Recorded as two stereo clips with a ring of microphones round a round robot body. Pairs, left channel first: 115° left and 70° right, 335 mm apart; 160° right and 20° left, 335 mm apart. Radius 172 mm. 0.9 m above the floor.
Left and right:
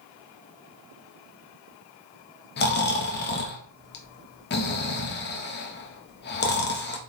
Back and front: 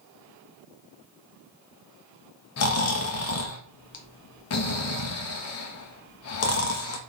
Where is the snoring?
165° left, 1.4 m.